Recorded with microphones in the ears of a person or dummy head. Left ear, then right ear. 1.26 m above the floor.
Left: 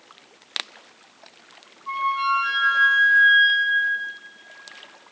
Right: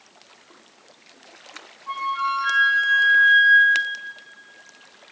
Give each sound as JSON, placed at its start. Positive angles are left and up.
{"t": 1.9, "sound": "a flute", "side_deg": 75, "distance_m": 3.5}